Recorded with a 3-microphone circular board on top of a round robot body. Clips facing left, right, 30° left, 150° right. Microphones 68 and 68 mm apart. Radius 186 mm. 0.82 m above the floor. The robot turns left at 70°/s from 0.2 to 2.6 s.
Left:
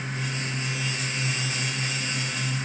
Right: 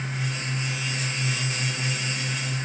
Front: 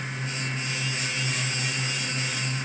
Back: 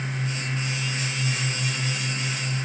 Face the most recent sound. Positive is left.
No sound to turn to.